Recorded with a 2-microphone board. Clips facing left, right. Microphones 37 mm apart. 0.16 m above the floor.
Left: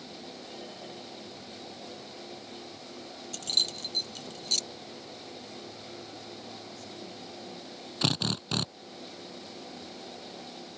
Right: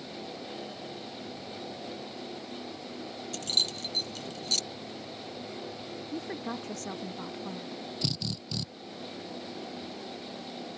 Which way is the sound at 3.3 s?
Centre (ahead or behind).